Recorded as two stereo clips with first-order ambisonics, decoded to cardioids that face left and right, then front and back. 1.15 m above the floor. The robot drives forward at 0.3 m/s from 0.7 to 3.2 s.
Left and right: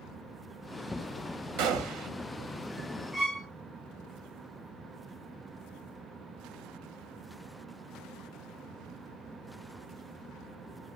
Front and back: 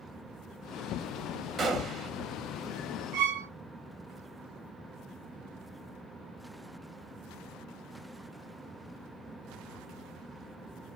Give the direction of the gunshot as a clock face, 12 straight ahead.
4 o'clock.